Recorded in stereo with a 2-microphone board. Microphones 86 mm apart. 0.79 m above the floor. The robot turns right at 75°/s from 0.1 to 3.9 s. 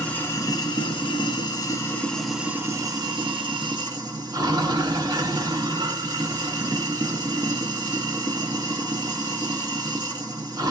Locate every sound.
0.0 s running water: 15° left, 1.1 m; by 10.7 s 60° right, 1.1 m